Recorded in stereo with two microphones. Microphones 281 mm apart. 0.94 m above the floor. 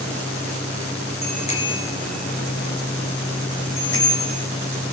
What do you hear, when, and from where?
1.2 s a bicycle bell: 20° left (ahead or behind), 3 m; by 4.4 s 55° left (ahead or behind), 3 m